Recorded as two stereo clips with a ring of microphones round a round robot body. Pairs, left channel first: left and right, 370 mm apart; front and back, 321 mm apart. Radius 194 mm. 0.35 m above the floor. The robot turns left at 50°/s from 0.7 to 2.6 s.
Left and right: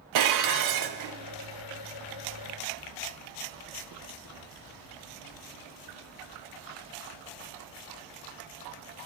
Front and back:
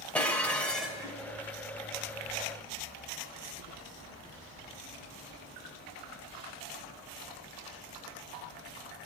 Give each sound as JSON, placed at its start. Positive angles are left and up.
{"t": 0.1, "sound": "dishes clattering", "azimuth_deg": -85, "distance_m": 1.0}